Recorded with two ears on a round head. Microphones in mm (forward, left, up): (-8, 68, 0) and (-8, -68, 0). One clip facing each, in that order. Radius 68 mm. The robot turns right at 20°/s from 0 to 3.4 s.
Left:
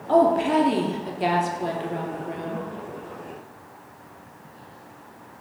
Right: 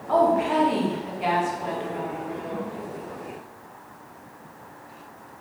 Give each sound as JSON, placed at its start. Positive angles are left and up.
{"t": 0.1, "sound": "a woman speaking", "azimuth_deg": 55, "distance_m": 0.8}